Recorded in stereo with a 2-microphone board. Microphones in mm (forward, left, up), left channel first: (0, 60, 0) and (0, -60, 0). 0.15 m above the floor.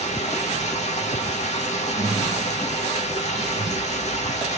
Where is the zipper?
Centre (ahead or behind), 2.5 m.